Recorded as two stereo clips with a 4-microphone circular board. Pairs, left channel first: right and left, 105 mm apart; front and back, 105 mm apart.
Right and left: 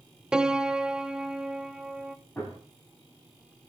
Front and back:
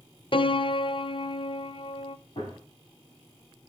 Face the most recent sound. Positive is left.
turn(degrees=-15)